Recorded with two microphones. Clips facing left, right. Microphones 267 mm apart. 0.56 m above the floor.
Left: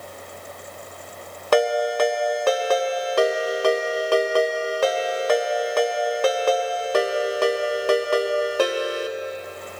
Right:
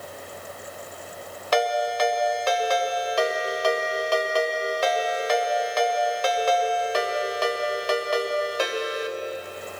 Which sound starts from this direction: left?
A ringtone, at 1.5 s.